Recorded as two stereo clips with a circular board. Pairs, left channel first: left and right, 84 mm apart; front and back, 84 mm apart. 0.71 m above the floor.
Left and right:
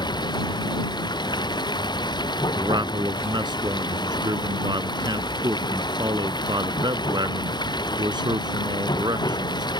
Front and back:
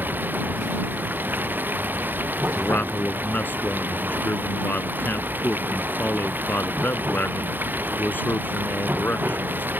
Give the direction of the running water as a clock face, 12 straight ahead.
8 o'clock.